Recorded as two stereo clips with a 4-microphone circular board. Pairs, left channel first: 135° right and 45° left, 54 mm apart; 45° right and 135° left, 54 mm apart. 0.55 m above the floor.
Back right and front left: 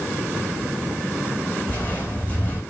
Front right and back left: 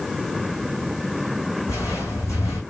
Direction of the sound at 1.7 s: 70° right.